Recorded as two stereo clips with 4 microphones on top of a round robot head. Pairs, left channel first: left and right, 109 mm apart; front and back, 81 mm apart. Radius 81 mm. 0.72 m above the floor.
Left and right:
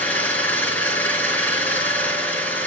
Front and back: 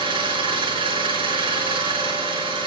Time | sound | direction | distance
0.0 | an engine running | 165° left | 9.5 m